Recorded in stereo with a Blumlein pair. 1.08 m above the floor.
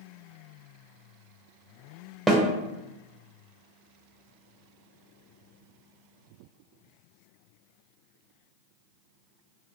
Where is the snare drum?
Straight ahead, 0.5 m.